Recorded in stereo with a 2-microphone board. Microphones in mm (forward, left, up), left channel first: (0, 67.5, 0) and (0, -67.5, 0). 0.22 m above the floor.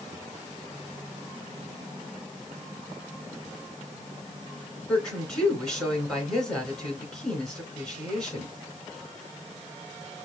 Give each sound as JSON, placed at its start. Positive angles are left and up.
{"t": 4.9, "sound": "a woman speaking", "side_deg": 5, "distance_m": 3.0}